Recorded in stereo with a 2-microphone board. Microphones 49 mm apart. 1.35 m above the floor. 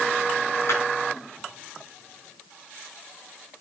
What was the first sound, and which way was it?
A clap, 60° left (ahead or behind).